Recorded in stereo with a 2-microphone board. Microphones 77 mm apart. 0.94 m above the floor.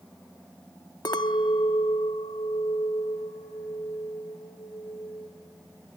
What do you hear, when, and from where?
1.1 s a clink: 70° left (ahead or behind), 0.8 m